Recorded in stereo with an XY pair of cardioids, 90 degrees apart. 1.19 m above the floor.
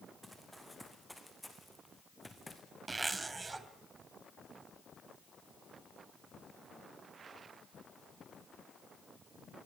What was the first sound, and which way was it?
Running footsteps, 5° right.